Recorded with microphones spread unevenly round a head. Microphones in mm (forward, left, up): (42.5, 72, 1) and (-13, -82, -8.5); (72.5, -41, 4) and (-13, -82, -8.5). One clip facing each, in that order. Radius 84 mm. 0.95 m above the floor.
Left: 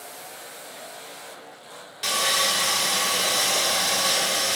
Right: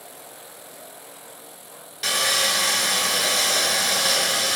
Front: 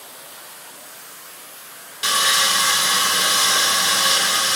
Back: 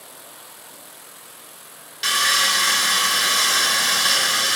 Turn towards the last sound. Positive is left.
turn(degrees=-20)